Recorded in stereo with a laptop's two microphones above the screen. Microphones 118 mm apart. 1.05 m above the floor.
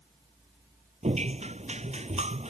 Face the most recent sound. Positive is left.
turn(degrees=-70)  # may be behind; listen again after turning